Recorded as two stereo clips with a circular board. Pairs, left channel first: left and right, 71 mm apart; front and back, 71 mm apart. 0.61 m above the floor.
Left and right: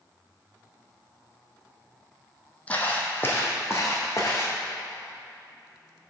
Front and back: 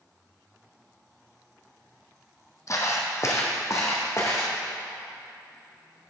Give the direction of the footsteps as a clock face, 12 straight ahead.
11 o'clock.